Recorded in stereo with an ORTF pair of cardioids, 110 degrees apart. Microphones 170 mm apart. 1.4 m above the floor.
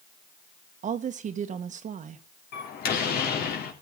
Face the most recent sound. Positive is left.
turn(degrees=65)